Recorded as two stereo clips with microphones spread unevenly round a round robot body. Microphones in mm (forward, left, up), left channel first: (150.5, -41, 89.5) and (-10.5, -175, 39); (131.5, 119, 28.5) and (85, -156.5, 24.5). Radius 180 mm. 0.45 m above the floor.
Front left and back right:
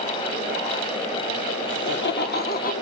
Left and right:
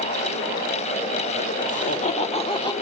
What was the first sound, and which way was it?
Laughter, 30° left.